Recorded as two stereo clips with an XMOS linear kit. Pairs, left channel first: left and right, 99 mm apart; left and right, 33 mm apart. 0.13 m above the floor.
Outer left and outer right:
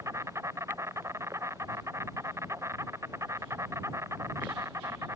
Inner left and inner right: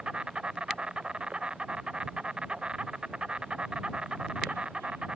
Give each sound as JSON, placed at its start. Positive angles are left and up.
{"t": 0.0, "sound": "an insect", "side_deg": -30}